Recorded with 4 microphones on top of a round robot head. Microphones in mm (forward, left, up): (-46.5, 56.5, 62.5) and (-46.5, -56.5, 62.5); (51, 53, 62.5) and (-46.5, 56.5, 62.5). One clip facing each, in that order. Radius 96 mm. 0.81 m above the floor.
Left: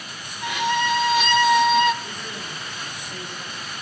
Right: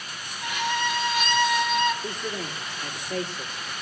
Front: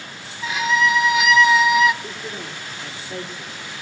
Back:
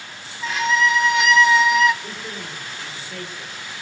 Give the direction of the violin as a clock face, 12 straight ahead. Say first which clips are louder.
Left 5 dB, even; 9 o'clock.